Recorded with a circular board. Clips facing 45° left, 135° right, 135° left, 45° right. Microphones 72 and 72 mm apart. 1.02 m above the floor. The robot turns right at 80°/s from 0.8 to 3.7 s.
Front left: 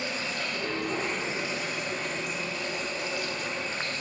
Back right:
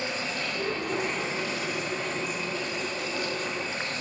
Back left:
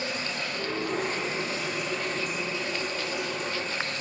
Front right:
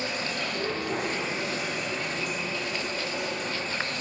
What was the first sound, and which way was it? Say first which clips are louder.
Running water: back right 1 dB, front right 1 dB; 75° right.